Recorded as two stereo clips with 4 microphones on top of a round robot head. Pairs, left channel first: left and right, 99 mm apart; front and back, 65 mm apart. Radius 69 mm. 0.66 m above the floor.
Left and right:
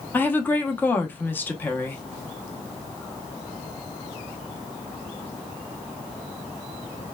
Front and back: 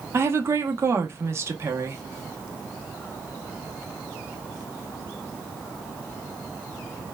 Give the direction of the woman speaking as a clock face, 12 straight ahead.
7 o'clock.